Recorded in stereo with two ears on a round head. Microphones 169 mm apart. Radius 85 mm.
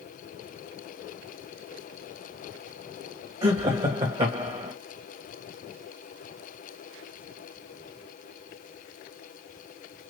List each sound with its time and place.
3.4 s laughter: 30° right (ahead or behind), 1.5 m